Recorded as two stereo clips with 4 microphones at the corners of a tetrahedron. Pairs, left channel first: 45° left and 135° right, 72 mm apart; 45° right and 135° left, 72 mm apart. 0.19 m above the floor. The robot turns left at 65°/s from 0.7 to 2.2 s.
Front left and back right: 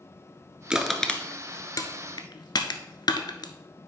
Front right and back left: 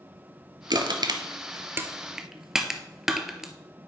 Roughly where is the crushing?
Behind left.